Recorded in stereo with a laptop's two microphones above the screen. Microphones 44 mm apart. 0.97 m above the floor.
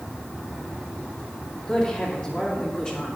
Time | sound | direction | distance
1.7 | a woman speaking | 25° left (ahead or behind) | 2.5 m